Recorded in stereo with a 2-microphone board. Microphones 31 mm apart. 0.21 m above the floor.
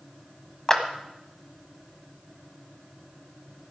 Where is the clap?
20° left (ahead or behind), 1.2 m.